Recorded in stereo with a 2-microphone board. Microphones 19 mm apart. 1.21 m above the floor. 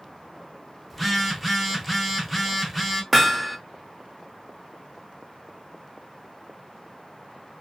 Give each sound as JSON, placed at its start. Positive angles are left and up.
{"t": 0.9, "sound": "a phone buzzing", "side_deg": 0, "distance_m": 0.6}
{"t": 3.1, "sound": "hammering", "side_deg": 5, "distance_m": 0.7}